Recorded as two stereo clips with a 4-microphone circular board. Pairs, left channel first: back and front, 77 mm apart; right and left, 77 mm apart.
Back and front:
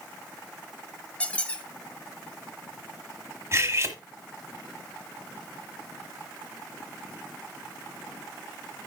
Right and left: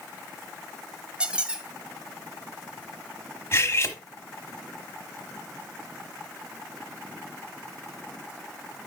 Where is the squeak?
140° left, 1.0 m.